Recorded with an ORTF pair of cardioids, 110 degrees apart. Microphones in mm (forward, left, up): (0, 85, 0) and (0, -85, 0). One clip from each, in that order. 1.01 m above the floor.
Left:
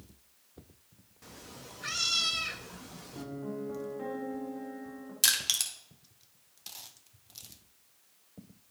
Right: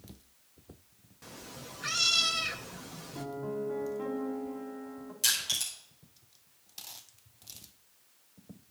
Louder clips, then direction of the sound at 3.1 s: Right 3 dB; 5° right.